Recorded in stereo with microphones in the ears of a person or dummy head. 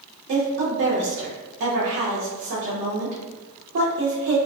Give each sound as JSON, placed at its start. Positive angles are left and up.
{"t": 0.3, "sound": "a woman speaking", "side_deg": -40, "distance_m": 0.7}